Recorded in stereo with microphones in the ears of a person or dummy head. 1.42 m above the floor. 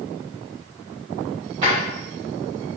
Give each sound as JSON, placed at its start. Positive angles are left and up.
{"t": 1.6, "sound": "a drawer", "side_deg": -25, "distance_m": 0.8}